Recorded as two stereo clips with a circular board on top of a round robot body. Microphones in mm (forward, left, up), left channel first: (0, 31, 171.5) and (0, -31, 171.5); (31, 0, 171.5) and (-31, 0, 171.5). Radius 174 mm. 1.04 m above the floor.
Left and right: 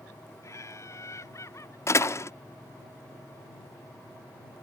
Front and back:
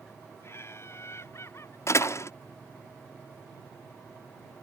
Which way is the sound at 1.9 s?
45° left.